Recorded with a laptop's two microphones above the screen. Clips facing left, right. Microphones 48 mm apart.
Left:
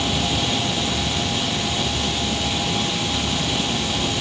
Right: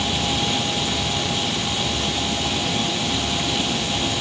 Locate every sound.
Only background noise.